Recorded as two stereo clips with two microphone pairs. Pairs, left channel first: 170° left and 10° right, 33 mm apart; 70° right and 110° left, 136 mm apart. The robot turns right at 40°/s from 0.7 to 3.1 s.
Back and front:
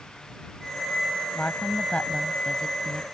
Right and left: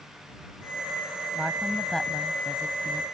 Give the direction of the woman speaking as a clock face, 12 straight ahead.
6 o'clock.